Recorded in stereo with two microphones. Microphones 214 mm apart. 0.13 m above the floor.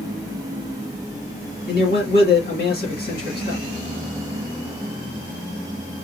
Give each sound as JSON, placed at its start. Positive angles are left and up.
{"t": 1.7, "sound": "a man speaking", "side_deg": 45, "distance_m": 2.5}